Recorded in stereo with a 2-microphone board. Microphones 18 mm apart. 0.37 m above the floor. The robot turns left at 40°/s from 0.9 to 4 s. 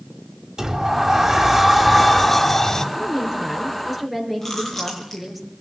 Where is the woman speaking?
125° right, 5 m; by 5.4 s 165° right, 5 m.